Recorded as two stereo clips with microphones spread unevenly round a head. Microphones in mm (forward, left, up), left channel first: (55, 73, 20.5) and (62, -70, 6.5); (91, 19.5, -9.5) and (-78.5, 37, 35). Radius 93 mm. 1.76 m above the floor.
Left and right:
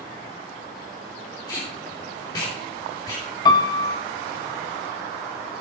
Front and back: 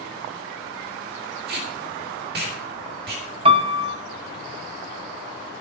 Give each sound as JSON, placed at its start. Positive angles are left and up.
{"t": 1.5, "sound": "tape being pulled", "azimuth_deg": 160, "distance_m": 3.0}
{"t": 3.5, "sound": "a piano", "azimuth_deg": 145, "distance_m": 0.9}